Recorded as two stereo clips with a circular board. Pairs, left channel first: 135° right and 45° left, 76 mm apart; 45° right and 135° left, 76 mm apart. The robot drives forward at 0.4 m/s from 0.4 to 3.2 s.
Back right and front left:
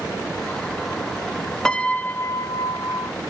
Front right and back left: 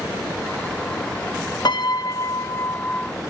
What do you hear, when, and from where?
1.6 s a piano: 55° right, 0.6 m; by 3.1 s 120° right, 0.6 m